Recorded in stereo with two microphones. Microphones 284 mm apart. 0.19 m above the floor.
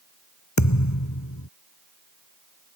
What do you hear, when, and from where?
0.6 s a thud: 75° left (ahead or behind)